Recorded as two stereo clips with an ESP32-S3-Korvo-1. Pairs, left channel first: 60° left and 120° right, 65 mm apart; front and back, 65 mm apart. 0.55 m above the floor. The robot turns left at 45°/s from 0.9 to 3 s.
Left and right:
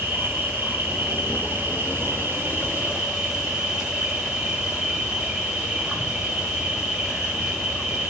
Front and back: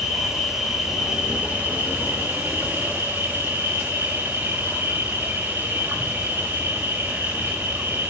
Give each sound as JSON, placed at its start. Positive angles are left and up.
{"t": 0.0, "sound": "an insect", "azimuth_deg": -95, "distance_m": 1.5}